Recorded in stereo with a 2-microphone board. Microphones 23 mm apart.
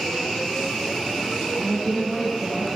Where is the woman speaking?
40° right (ahead or behind), 1.9 m.